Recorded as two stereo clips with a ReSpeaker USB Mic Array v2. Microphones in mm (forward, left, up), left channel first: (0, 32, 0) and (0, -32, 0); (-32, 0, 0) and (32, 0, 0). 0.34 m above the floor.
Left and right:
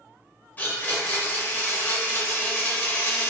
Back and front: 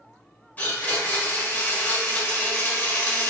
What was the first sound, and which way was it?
A blender, 130° left.